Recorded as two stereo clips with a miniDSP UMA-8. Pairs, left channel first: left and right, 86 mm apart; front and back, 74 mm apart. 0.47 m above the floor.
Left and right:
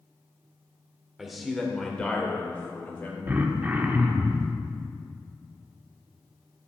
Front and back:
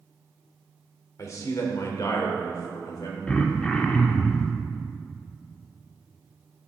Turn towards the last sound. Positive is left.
turn(degrees=-60)